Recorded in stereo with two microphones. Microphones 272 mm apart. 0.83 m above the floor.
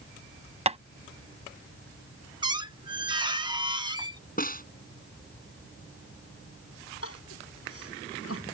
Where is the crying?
60° left (ahead or behind).